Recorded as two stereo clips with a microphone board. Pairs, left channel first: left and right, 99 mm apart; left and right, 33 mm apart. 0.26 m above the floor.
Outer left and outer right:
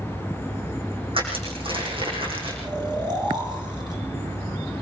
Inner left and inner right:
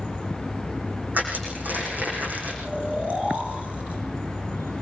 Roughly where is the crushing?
Right.